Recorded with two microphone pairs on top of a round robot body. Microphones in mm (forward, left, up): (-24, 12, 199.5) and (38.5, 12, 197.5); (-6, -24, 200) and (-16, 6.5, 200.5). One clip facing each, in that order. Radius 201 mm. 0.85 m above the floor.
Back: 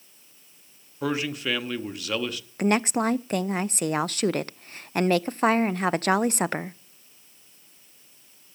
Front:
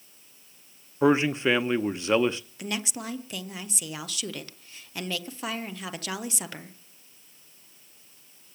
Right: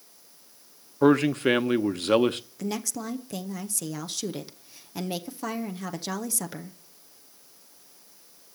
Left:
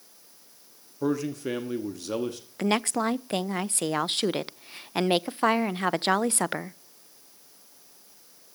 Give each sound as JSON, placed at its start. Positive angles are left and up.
{"t": 1.0, "sound": "a man speaking", "azimuth_deg": -60, "distance_m": 0.9}
{"t": 2.6, "sound": "a woman speaking", "azimuth_deg": 145, "distance_m": 0.6}